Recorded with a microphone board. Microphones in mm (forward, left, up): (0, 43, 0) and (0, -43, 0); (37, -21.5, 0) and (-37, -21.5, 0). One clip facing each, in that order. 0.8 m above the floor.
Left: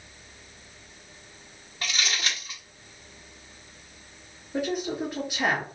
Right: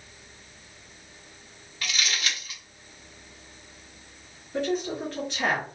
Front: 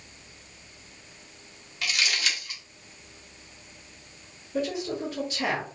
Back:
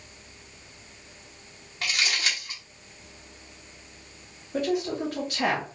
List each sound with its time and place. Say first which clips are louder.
1.8 s crumpling: even, back 1 dB; 140° left, 1.2 m
4.5 s a woman speaking: right 1 dB, back 3 dB; 170° left, 1.8 m